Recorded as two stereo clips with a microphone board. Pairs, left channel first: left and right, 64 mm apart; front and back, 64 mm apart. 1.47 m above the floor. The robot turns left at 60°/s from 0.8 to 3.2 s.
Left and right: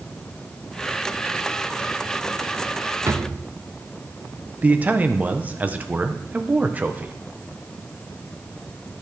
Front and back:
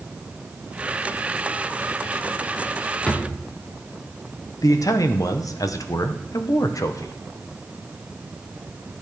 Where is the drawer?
70° right, 0.9 m; by 3.4 s 75° right, 0.9 m.